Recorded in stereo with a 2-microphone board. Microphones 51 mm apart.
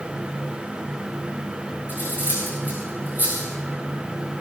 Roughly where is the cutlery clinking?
Right.